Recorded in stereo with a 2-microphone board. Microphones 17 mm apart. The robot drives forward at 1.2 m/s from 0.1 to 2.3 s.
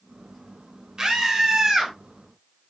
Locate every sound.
1.0 s a scream: 45° right (ahead or behind), 3 m; by 1.9 s 35° right (ahead or behind), 4 m